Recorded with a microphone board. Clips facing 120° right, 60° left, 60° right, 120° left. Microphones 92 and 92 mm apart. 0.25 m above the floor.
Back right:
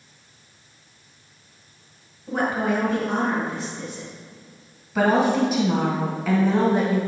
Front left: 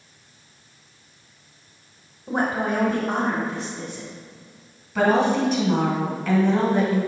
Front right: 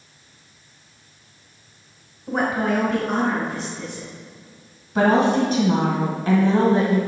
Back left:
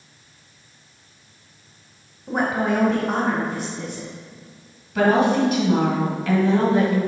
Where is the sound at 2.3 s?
30° left, 1.1 m; by 4.1 s 115° left, 2 m.